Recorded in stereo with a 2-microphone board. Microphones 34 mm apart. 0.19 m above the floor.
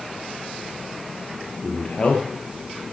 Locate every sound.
1.6 s a man speaking: 40° left (ahead or behind), 3.5 m